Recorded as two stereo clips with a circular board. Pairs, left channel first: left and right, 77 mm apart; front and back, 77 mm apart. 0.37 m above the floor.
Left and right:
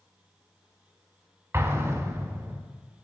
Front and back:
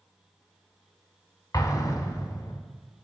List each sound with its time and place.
1.5 s an explosion: 35° right, 0.7 m